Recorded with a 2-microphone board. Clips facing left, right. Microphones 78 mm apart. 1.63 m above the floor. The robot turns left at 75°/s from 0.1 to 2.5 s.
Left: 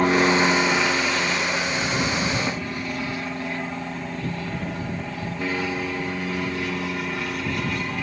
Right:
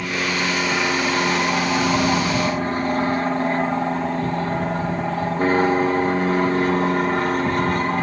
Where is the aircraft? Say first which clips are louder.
Left 5 dB; 45° left; by 8.0 s 135° right.